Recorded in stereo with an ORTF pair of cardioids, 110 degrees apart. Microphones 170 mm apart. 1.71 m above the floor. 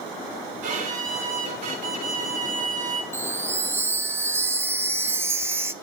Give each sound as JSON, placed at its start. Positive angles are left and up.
{"t": 0.6, "sound": "a violin", "azimuth_deg": -55, "distance_m": 6.0}
{"t": 3.1, "sound": "a chime", "azimuth_deg": -15, "distance_m": 0.8}